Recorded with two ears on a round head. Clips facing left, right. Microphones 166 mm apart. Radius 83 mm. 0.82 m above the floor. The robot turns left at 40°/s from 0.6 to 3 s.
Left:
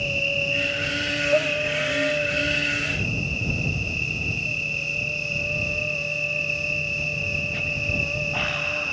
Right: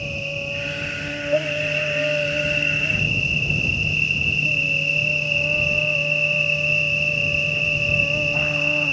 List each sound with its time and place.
0.0 s an insect: 20° left; by 8.9 s 75° right